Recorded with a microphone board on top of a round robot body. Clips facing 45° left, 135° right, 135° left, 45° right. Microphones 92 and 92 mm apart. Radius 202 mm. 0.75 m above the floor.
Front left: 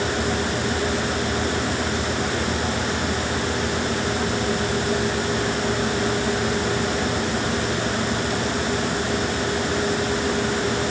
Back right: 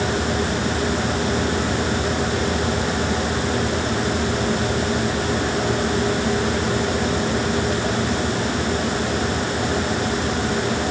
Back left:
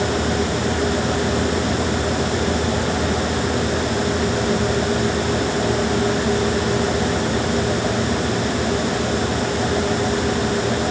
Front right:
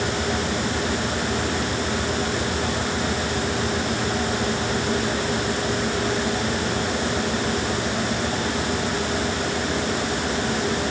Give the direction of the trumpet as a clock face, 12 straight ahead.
No trumpet in this recording.